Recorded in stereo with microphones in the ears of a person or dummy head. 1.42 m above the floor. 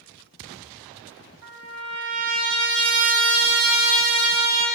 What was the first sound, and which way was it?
A trumpet, 65° right (ahead or behind).